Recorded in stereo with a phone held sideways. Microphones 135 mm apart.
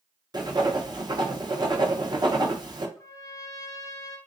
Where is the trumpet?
25° left (ahead or behind), 0.7 m.